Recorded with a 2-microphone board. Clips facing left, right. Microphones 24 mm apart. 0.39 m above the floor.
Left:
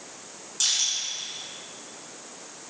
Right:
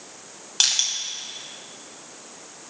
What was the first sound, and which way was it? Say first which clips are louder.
Crushing: right 4 dB; 65° right (ahead or behind).